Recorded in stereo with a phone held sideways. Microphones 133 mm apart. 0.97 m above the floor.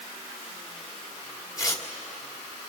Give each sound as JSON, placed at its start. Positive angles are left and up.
{"t": 1.6, "sound": "tearing paper", "side_deg": 30, "distance_m": 2.0}